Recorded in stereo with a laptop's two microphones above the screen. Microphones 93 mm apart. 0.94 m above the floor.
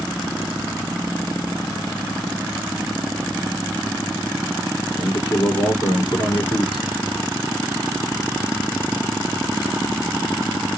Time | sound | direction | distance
5.0 | a man speaking | 55° left (ahead or behind) | 2.5 m